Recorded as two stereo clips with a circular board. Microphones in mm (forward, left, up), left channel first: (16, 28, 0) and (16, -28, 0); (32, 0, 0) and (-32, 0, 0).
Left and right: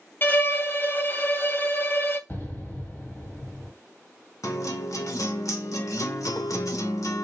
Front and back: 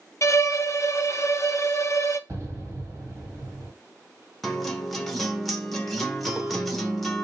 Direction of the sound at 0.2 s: 40° left.